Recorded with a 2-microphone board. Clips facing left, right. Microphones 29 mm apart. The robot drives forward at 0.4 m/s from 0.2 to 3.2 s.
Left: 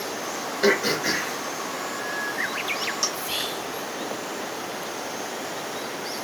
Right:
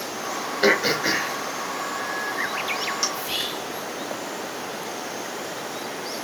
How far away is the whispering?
About 1.8 m.